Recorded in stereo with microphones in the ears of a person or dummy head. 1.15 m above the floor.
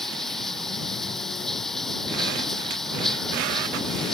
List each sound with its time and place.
0.0 s running water: centre (ahead or behind)